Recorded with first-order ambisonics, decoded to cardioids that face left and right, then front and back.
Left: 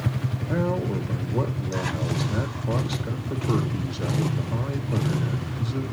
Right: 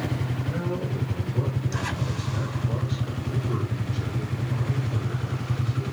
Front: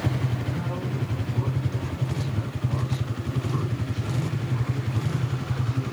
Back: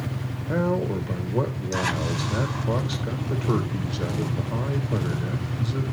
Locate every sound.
0.5 s a man speaking: 150° left, 1.9 m